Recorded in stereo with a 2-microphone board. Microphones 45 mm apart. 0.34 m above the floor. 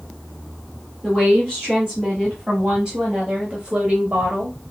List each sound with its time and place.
1.0 s a woman speaking: 15° right (ahead or behind), 3 m; by 4.6 s 35° right (ahead or behind), 1.1 m